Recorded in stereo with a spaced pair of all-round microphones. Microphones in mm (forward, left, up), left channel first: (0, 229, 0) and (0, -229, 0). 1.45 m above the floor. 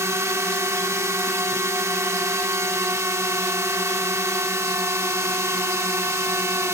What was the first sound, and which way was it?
A drone, 5° right (ahead or behind).